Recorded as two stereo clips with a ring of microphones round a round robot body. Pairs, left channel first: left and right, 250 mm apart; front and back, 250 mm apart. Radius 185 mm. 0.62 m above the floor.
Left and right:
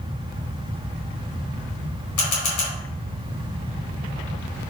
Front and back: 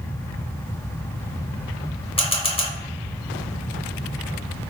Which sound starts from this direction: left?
A camera shutter, at 2.2 s.